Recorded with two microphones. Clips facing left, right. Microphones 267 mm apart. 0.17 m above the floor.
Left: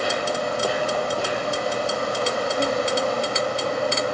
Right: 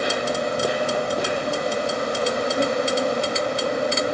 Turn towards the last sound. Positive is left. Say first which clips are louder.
# right 1 dB
turn(degrees=-20)  # may be behind; listen again after turning